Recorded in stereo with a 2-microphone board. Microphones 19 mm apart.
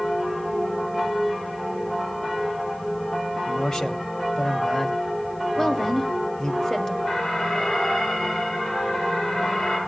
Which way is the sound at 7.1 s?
65° left (ahead or behind).